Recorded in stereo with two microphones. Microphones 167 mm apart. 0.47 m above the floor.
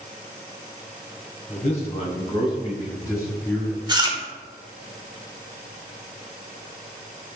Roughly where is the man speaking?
Left.